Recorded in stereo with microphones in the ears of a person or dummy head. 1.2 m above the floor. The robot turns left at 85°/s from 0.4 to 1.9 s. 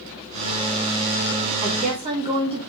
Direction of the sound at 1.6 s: 50° right (ahead or behind).